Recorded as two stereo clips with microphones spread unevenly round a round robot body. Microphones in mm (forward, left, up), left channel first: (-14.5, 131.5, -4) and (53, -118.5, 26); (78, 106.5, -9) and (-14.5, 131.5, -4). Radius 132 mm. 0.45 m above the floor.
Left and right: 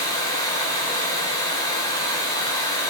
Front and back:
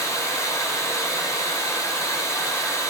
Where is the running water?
35° left, 1.5 m.